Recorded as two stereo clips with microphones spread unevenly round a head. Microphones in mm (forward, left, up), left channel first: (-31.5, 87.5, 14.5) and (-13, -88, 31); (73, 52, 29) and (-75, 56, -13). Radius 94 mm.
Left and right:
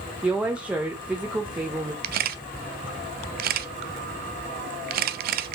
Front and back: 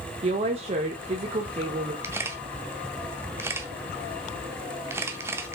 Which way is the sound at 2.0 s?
95° right.